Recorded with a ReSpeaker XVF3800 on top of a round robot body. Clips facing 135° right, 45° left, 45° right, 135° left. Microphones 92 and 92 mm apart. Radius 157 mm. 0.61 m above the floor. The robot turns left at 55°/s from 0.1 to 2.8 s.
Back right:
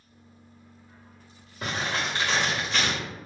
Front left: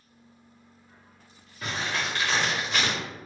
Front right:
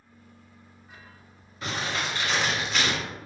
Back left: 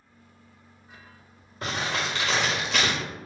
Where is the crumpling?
175° right, 0.5 m; by 3.0 s 120° left, 0.5 m.